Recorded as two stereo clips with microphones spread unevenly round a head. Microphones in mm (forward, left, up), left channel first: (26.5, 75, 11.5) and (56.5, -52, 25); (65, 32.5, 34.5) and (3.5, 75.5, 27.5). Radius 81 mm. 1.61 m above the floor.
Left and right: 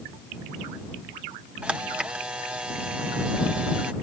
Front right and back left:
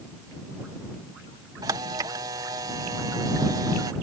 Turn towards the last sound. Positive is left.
turn(degrees=-160)